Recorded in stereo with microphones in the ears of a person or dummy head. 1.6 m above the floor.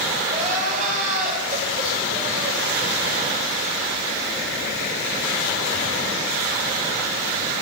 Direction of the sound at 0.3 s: 40° right (ahead or behind).